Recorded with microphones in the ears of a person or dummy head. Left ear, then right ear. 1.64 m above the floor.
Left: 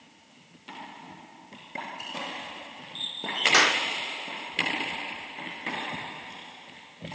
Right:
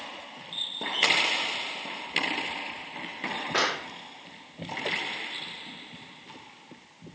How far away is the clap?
About 4.5 m.